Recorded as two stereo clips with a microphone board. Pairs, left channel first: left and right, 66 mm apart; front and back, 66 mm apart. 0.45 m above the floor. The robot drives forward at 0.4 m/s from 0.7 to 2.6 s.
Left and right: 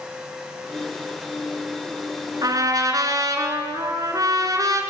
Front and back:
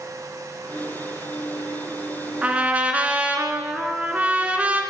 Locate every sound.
2.4 s a trumpet: 110° right, 3.5 m